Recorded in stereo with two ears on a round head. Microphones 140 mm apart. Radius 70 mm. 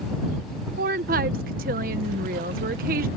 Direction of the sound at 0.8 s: 60° right (ahead or behind).